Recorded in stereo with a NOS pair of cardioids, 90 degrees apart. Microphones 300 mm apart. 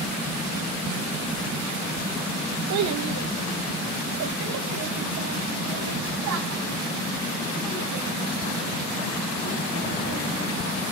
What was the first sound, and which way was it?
A child speaking, 70° right.